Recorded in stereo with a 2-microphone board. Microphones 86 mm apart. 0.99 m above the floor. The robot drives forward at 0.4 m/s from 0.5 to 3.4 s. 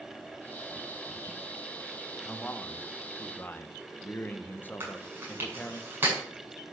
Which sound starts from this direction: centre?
A man speaking, at 2.2 s.